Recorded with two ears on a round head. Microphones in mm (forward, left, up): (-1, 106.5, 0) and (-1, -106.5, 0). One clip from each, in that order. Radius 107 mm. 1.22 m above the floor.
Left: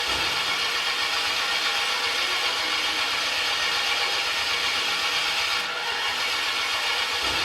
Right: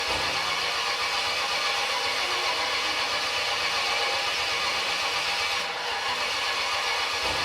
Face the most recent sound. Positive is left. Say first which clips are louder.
# left 2 dB
turn(degrees=35)  # may be behind; listen again after turning